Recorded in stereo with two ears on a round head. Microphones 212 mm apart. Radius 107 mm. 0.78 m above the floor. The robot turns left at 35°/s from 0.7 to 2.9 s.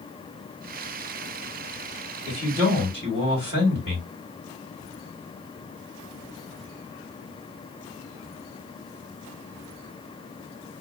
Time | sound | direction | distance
2.3 | a man speaking | centre (ahead or behind) | 2 m